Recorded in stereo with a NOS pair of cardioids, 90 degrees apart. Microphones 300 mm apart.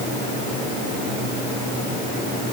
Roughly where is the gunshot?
I don't hear a gunshot.